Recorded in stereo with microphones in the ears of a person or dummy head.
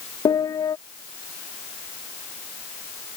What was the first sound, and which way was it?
A piano, 20° left (ahead or behind).